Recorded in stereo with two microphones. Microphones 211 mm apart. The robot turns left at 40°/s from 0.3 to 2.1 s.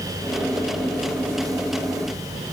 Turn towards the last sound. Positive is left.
No sound to turn to.